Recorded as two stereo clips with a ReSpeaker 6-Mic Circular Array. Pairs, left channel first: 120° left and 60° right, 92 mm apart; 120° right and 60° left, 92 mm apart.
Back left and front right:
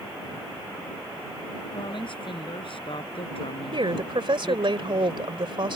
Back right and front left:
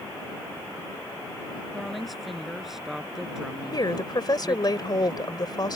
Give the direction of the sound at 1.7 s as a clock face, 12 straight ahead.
7 o'clock.